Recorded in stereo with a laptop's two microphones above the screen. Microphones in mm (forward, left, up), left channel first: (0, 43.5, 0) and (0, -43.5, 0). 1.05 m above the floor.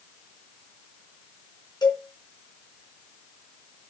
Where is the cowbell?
50° left (ahead or behind), 3 m.